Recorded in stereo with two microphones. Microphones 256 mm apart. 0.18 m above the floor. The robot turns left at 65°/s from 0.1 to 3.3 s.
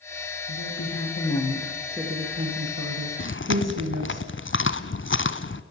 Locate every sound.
0.5 s a woman speaking: 90° left, 8.5 m; by 4.2 s 95° right, 8.5 m
3.2 s chewing: 50° left (ahead or behind), 1.3 m